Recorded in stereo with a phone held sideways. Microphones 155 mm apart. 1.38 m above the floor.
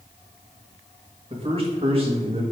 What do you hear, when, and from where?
1.3 s a man speaking: 40° right (ahead or behind), 2.0 m